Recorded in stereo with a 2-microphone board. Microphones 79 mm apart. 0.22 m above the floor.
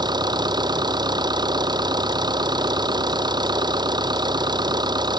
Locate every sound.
0.0 s an engine running: 60° right (ahead or behind)